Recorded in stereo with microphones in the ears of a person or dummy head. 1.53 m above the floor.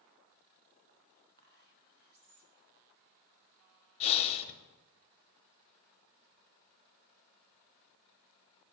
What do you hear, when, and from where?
1.4 s whispering: 50° right (ahead or behind), 0.8 m
4.0 s breathing: 30° left (ahead or behind), 0.6 m